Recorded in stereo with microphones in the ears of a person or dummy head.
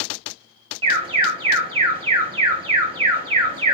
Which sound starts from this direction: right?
An alarm, at 0.8 s.